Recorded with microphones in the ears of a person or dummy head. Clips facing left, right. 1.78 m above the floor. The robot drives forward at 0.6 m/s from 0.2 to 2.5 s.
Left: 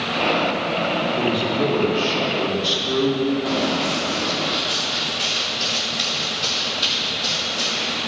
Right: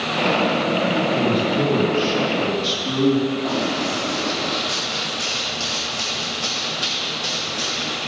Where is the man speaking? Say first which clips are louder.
Right 2 dB; 65° right (ahead or behind), 2.5 m; by 3.3 s 50° right (ahead or behind), 2.5 m.